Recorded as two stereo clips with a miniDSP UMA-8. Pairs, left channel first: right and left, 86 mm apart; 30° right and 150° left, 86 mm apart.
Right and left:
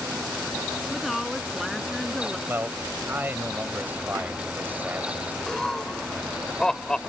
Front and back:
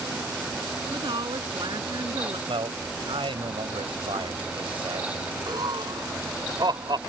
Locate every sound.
0.9 s a woman speaking: straight behind
2.5 s a man speaking: 155° left
5.5 s laughter: 175° right